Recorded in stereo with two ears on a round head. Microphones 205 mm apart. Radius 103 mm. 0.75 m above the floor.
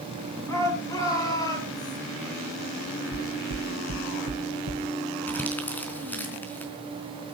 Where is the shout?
10° left (ahead or behind), 8.5 m; by 2.0 s 20° left (ahead or behind), 8.5 m.